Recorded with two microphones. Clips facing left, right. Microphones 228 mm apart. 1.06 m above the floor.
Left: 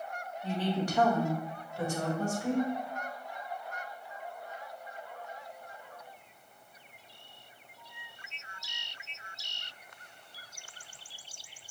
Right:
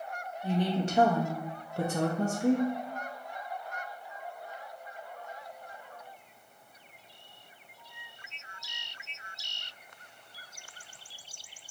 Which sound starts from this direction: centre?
A woman speaking, at 0.4 s.